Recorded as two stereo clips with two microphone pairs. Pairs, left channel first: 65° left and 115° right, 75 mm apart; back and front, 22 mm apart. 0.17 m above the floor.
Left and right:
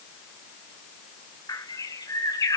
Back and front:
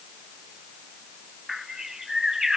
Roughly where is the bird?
Ahead left.